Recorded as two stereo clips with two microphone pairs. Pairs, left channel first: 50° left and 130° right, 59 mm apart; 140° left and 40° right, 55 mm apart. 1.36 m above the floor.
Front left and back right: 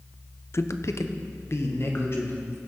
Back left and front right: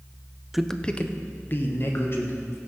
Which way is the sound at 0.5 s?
40° left.